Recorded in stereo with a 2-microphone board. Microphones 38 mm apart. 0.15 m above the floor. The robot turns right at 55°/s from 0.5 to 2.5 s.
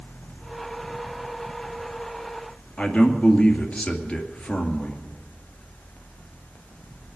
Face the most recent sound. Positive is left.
turn(degrees=25)  # may be behind; listen again after turning